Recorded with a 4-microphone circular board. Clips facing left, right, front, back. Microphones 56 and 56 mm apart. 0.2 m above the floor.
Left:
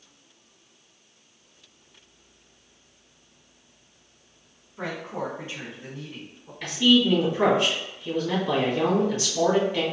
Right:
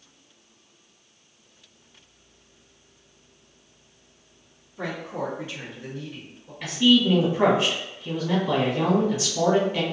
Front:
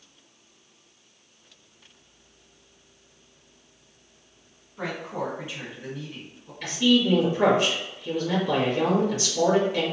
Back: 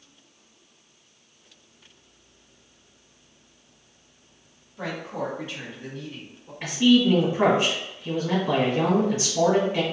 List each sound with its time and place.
4.8 s a woman speaking: 45° left, 1.5 m; by 6.5 s 95° left, 1.4 m
6.6 s a man speaking: 165° right, 1.5 m